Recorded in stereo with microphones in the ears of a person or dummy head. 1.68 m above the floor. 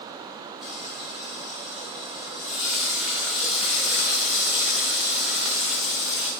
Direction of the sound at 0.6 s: 5° right (ahead or behind).